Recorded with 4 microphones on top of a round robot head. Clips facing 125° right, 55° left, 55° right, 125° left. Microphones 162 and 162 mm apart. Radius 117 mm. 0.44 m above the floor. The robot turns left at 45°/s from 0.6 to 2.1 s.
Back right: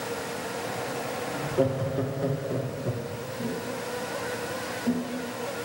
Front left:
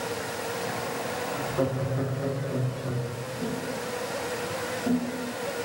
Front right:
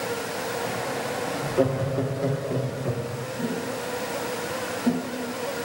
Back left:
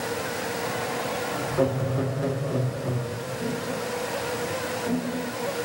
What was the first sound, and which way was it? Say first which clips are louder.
Laughter: back right 3 dB, front right 1 dB; 90° right.